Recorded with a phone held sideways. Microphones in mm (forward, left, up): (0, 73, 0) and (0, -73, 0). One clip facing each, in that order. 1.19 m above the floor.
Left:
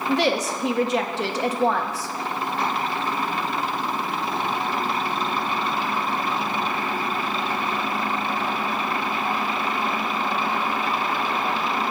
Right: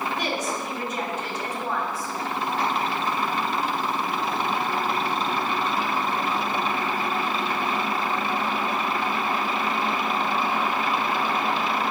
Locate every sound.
0.1 s a woman speaking: 85° left, 1.1 m